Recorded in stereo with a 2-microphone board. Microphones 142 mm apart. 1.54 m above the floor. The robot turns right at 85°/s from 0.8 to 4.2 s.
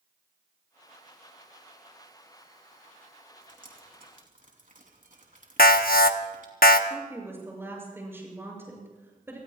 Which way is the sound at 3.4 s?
50° right (ahead or behind).